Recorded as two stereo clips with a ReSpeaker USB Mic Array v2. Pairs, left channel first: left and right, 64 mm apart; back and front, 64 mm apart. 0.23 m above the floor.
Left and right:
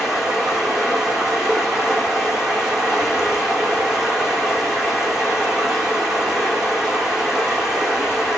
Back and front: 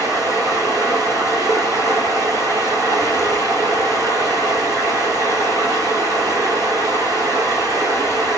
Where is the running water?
10° right, 5 m.